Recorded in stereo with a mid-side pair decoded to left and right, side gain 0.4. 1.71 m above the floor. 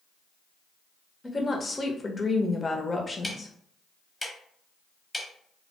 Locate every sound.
1.2 s a woman speaking: 25° left, 0.8 m
3.2 s ticking: 5° left, 1.0 m